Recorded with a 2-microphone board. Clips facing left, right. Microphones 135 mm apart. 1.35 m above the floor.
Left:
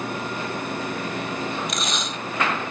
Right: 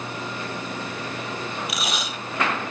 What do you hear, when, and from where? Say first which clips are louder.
1.7 s tape being pulled: left 1 dB; 5° right (ahead or behind)